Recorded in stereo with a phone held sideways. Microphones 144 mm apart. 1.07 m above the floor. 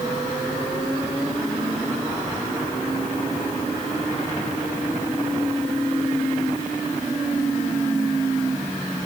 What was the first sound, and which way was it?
Only background noise.